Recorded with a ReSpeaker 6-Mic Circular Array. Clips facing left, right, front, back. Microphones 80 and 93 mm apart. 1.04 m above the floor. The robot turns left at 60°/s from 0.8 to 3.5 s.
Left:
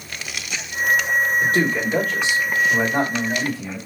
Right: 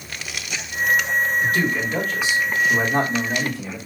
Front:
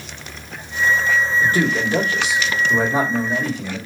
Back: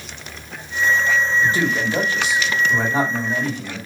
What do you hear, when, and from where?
1.4 s a man speaking: 45° left, 1.4 m; by 3.8 s 85° right, 1.4 m